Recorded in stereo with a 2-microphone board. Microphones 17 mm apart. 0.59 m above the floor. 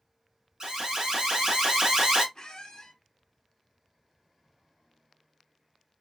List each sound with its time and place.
0.6 s an alarm: 35° right (ahead or behind), 1.4 m
2.4 s a squeak: 50° left (ahead or behind), 0.5 m